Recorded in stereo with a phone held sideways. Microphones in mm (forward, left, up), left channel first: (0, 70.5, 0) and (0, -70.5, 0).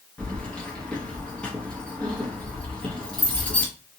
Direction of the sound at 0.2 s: 5° left (ahead or behind).